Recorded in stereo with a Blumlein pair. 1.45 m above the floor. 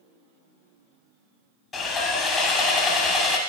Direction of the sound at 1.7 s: 15° left.